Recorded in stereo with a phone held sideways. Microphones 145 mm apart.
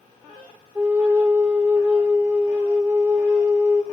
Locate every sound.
0.8 s a flute: 10° right (ahead or behind), 0.5 m